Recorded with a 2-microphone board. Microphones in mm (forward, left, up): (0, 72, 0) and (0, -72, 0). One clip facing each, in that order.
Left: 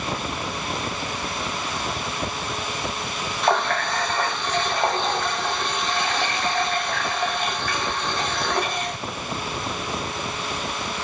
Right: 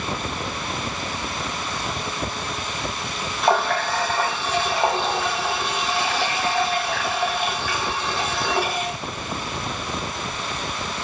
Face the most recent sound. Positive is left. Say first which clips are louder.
# right 2 dB
turn(degrees=-5)  # may be behind; listen again after turning